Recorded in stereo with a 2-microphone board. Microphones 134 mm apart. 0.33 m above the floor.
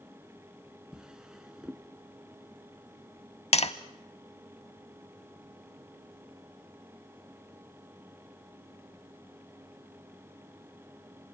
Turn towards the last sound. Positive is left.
turn(degrees=50)  # may be behind; listen again after turning